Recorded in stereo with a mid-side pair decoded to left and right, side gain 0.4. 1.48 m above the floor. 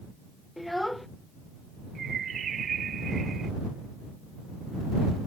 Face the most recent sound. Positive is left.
turn(degrees=-60)